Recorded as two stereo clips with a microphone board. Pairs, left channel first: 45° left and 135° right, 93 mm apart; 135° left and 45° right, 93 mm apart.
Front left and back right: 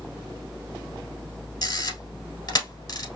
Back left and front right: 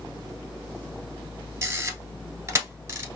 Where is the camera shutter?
10° left, 1.1 m.